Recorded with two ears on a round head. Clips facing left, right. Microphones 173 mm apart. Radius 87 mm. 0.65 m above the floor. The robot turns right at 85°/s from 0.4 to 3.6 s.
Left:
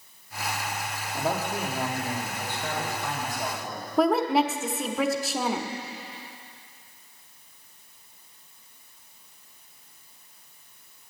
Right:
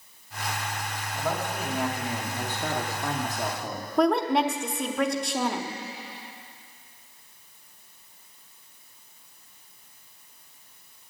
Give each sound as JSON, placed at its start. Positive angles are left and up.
{"t": 1.1, "sound": "a man speaking", "azimuth_deg": 125, "distance_m": 1.6}
{"t": 4.0, "sound": "a woman speaking", "side_deg": 5, "distance_m": 0.9}